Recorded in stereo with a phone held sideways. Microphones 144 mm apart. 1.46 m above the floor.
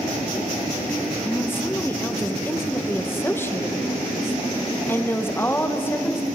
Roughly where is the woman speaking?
Centre.